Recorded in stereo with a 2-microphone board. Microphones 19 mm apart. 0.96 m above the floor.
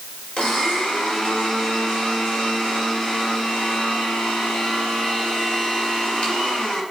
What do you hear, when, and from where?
0.4 s a blender: 70° left (ahead or behind), 3 m